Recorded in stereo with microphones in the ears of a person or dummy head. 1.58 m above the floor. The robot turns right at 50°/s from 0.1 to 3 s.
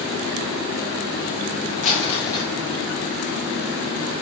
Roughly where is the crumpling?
Behind left.